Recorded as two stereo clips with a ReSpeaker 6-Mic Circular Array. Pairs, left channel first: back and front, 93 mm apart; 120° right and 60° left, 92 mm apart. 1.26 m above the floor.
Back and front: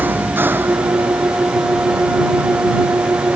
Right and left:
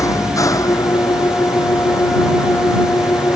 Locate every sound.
0.0 s an engine running: 70° right